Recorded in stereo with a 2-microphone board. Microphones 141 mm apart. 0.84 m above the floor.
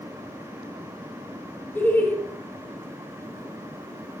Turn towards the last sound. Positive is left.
turn(degrees=10)  # may be behind; listen again after turning